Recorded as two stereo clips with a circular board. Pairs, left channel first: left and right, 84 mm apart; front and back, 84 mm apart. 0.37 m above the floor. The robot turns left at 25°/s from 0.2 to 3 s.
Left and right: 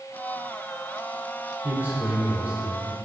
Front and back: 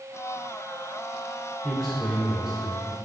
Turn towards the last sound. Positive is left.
turn(degrees=-120)